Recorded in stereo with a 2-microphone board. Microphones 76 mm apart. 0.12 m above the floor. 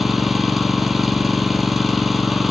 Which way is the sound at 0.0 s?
Centre (ahead or behind).